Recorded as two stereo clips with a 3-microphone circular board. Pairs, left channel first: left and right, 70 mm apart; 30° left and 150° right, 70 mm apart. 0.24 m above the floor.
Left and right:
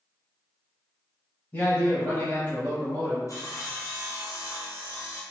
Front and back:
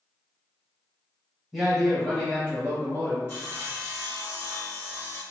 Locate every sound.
1.5 s a man speaking: 125° left, 1.1 m; by 3.2 s 35° left, 1.2 m
3.3 s sawing: 80° left, 1.5 m